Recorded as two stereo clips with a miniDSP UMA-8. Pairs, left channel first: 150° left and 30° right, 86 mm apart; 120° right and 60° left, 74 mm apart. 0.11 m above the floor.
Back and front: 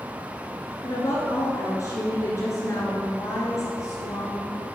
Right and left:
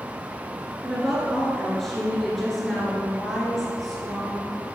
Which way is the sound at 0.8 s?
155° left.